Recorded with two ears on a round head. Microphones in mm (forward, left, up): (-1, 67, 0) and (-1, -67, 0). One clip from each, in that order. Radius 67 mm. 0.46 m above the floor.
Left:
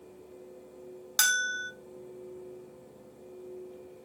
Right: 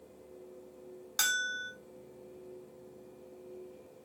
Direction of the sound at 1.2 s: 20° left (ahead or behind).